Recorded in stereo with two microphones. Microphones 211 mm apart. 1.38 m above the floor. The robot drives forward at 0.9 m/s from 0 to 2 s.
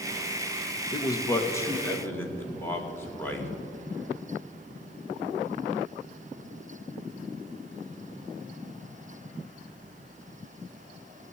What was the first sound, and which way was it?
A man speaking, 20° left (ahead or behind).